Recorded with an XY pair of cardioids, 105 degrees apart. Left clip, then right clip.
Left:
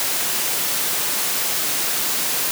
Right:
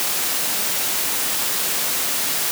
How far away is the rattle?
I don't hear a rattle.